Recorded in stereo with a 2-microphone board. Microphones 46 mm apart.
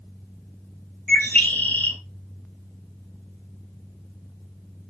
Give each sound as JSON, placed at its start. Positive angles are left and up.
{"t": 1.1, "sound": "a bird", "side_deg": 35, "distance_m": 2.5}